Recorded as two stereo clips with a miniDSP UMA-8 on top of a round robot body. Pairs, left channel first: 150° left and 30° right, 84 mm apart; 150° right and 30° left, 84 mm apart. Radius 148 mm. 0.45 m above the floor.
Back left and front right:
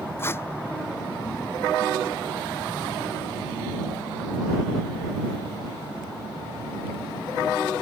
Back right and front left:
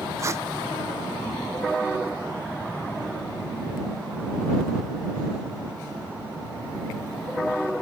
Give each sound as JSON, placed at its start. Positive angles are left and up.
{"t": 0.2, "sound": "tape being pulled", "azimuth_deg": 85}